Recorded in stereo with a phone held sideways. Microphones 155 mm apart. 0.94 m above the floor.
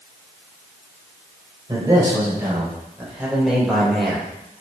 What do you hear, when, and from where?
1.7 s a man speaking: 25° right (ahead or behind), 4 m; by 4.2 s 5° left (ahead or behind), 3 m